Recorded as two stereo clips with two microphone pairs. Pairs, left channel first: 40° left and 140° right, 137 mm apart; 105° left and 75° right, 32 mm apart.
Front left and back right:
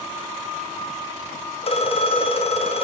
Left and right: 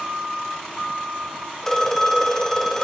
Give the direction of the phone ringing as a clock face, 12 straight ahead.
11 o'clock.